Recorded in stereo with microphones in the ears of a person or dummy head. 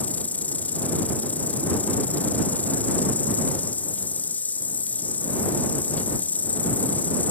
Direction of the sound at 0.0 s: 10° left (ahead or behind).